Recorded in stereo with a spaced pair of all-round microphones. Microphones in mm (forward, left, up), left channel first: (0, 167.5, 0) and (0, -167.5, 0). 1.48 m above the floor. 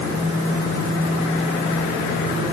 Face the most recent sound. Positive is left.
No sound to turn to.